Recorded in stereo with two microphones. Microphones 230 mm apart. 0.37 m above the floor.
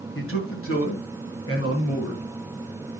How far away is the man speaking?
About 2.5 m.